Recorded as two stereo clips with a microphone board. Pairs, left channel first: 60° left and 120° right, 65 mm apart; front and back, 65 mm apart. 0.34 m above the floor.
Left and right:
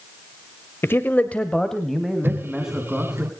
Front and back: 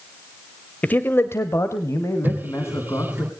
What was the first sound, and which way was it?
A man speaking, 50° left.